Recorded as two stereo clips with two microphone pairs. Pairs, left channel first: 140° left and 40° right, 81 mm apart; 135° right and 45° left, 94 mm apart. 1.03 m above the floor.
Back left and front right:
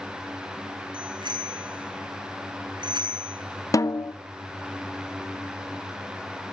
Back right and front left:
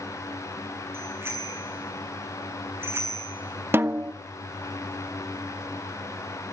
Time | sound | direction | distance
0.9 | a bicycle bell | 20° right | 8 m
3.7 | a snare drum | 105° left | 0.7 m